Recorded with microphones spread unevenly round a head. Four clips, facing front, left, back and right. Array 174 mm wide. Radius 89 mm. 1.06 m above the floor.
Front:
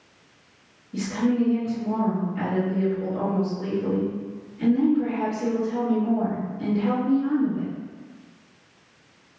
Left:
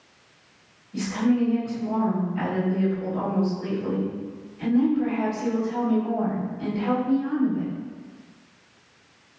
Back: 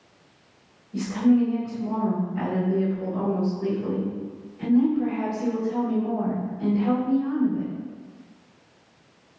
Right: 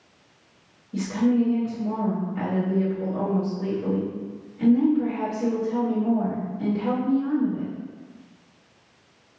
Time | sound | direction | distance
0.9 | a woman speaking | 85° right | 1.8 m